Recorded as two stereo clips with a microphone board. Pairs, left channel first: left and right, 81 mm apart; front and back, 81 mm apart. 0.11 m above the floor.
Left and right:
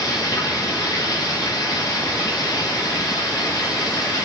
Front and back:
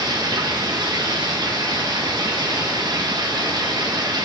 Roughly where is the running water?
Behind left.